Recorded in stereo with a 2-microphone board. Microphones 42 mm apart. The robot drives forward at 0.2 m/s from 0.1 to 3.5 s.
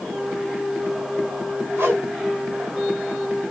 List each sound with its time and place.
1.8 s a whoosh: 70° right (ahead or behind), 1.5 m